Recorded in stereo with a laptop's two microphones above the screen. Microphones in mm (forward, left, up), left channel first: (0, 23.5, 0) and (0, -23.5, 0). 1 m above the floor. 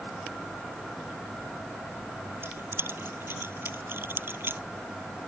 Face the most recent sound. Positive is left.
turn(degrees=-50)  # may be behind; listen again after turning